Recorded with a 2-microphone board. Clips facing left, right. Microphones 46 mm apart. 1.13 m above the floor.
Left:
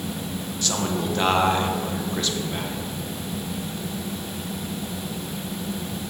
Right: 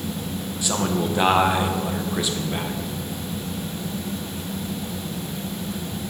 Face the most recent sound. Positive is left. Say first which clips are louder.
# right 2 dB
turn(degrees=-10)  # may be behind; listen again after turning